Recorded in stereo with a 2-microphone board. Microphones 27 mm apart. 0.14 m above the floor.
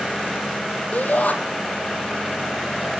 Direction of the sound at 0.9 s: 70° left (ahead or behind).